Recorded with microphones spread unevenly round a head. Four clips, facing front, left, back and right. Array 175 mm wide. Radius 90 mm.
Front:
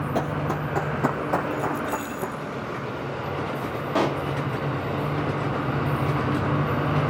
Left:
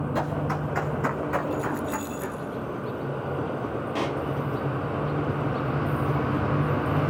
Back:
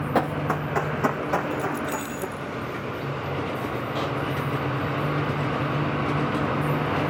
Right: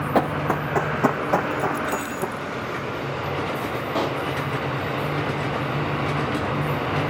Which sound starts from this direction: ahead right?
A pop, at 4.0 s.